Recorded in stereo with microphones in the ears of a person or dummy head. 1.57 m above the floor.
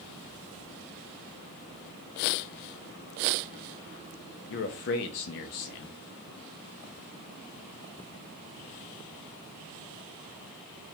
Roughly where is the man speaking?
Left.